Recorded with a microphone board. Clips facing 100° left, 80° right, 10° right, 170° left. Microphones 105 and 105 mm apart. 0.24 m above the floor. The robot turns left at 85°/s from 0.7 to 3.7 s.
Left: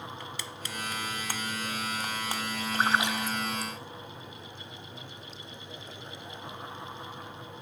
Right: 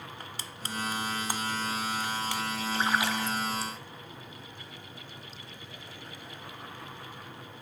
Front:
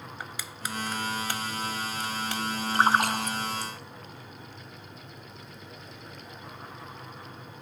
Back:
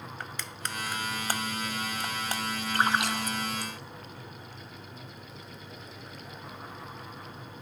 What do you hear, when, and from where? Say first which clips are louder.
0.2 s crushing: left 2 dB, front 1 dB; 90° right, 0.6 m; by 2.4 s 120° left, 0.6 m
2.7 s a splash: left 2 dB, front 4 dB; 55° left, 2 m; by 3.7 s 25° right, 2 m